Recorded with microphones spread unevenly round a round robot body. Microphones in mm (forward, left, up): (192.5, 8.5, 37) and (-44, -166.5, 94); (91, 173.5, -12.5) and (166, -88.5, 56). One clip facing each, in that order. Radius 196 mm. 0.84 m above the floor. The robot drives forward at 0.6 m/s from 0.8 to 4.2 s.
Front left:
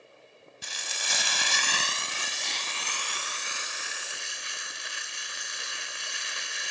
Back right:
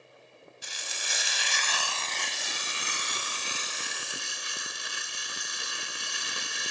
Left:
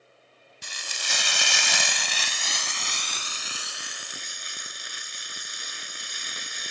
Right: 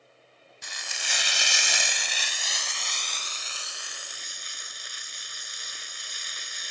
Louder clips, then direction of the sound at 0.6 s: Front left 2 dB, left 2 dB; 50° left.